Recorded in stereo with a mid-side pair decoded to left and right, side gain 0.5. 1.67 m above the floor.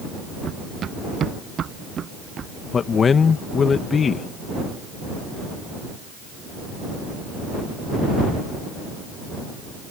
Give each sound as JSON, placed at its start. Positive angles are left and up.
{"t": 0.4, "sound": "running footsteps", "azimuth_deg": -50}
{"t": 2.7, "sound": "a man speaking", "azimuth_deg": 40}